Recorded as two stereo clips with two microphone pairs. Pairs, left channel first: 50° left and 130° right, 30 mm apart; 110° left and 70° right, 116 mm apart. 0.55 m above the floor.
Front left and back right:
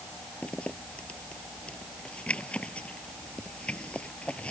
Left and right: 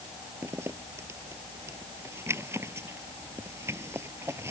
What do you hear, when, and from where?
0.4 s a zipper: straight ahead